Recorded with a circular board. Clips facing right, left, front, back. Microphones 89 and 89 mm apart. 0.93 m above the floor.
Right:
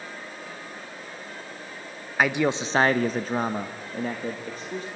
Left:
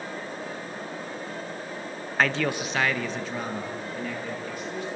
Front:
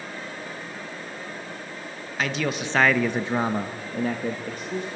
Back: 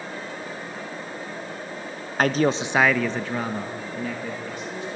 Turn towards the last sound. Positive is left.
turn(degrees=-40)